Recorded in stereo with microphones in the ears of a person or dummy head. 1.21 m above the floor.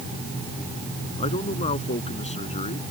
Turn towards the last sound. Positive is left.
turn(degrees=40)  # may be behind; listen again after turning